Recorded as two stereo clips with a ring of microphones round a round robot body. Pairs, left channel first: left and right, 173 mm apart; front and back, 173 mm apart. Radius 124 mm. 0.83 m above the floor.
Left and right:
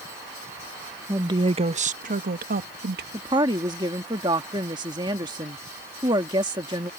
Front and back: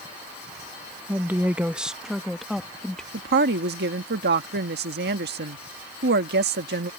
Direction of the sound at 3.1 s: 160° right.